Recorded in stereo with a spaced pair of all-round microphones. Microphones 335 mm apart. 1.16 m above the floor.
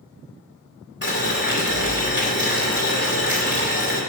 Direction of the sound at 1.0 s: 30° left (ahead or behind).